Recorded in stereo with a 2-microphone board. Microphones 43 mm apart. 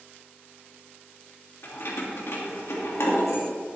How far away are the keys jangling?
About 2 m.